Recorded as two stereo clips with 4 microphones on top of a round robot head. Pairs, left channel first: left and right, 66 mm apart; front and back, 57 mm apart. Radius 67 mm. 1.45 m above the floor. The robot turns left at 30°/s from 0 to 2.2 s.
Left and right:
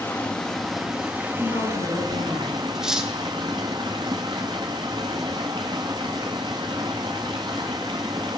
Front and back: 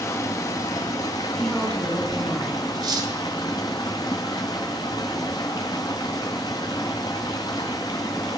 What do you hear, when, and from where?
0.0 s running water: 20° left, 1.0 m; by 8.4 s 45° right, 1.0 m
1.3 s a woman speaking: 80° left, 5 m; by 2.6 s 55° left, 5 m
2.8 s cutlery clinking: 170° right, 1.3 m